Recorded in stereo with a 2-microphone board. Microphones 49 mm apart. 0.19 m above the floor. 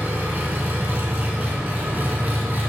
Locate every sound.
0.0 s an engine running: 40° right (ahead or behind), 0.7 m